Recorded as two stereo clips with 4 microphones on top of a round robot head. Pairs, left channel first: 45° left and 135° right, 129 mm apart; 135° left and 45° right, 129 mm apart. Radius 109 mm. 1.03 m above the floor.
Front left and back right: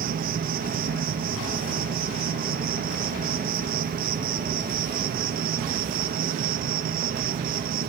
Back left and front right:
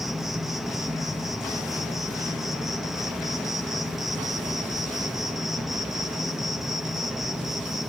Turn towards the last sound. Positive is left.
turn(degrees=-130)